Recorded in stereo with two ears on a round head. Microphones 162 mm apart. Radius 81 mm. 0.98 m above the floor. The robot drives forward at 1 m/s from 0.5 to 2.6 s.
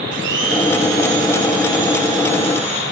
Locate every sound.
0.1 s a blender: 70° right (ahead or behind), 2.5 m; by 2.8 s 40° right (ahead or behind), 3.5 m